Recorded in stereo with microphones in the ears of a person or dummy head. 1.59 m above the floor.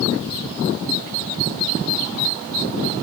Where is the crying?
I don't hear crying.